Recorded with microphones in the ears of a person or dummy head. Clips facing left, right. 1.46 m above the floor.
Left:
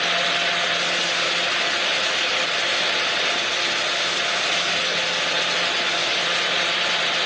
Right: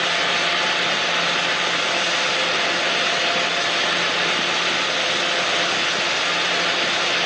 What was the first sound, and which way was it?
Only background noise.